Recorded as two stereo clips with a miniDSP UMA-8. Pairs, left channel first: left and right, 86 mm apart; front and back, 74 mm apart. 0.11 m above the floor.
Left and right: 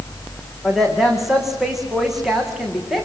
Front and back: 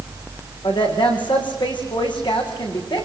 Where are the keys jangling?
No keys jangling in this recording.